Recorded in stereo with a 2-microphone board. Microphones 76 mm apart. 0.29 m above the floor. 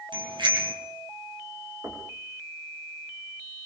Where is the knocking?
40° right (ahead or behind), 7.5 m.